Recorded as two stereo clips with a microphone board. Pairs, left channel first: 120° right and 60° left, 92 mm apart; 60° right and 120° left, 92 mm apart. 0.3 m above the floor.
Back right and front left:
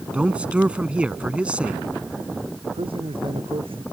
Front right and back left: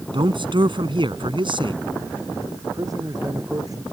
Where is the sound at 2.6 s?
70° left.